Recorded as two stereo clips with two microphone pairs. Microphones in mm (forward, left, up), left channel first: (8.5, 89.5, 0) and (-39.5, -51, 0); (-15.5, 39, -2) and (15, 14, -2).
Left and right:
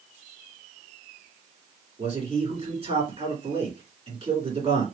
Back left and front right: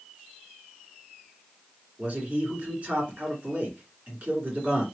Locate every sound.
2.0 s a man speaking: 80° right, 2 m